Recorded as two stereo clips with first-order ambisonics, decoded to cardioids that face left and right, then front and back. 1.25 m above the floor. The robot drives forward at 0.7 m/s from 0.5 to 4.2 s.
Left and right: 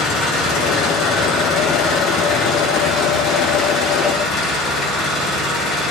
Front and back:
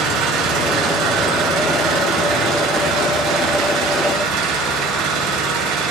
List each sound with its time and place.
0.0 s an engine running: 145° left, 9.5 m; by 5.9 s 155° left, 12 m